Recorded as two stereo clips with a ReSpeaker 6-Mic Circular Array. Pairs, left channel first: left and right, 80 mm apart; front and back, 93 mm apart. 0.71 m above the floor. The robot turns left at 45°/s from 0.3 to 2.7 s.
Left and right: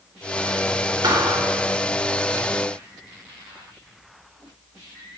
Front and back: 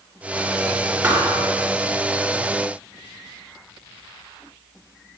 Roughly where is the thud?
Right.